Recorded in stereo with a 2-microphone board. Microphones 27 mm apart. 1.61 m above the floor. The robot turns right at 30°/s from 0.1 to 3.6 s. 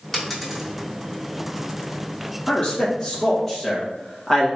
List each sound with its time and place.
0.1 s a dropped coin: 5° left (ahead or behind), 1.6 m; by 0.7 s 5° right (ahead or behind), 1.6 m
2.5 s a man speaking: 40° left (ahead or behind), 2 m; by 4.5 s 5° left (ahead or behind), 2 m